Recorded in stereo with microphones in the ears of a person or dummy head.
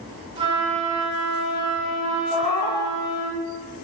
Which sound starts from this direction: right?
A flute, at 0.4 s.